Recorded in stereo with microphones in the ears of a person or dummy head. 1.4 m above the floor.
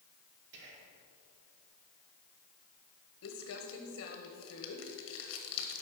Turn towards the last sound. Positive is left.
turn(degrees=70)  # may be behind; listen again after turning